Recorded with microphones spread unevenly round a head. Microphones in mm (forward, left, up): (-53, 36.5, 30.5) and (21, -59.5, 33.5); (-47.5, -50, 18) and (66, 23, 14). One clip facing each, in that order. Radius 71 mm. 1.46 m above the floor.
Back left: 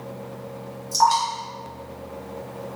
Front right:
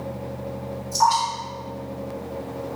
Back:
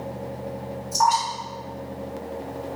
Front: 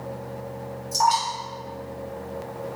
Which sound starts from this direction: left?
Dripping, at 0.9 s.